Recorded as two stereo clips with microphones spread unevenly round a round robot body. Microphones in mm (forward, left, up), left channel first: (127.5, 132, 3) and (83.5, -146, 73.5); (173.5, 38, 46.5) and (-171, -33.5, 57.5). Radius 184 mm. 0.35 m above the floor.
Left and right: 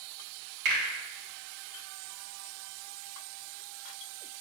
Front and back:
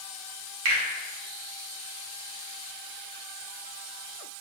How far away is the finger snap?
About 1.7 m.